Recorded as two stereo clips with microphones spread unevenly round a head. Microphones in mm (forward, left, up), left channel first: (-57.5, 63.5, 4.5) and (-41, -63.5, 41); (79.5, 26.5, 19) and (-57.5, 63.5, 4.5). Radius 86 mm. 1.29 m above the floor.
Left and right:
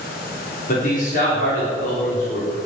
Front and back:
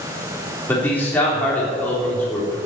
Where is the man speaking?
65° left, 4 m.